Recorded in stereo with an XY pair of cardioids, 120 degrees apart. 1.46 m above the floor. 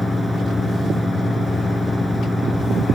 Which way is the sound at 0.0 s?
Straight ahead.